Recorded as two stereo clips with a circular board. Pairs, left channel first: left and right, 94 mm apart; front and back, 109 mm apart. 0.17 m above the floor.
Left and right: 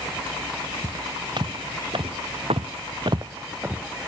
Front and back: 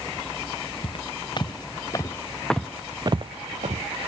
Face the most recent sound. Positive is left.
turn(degrees=-170)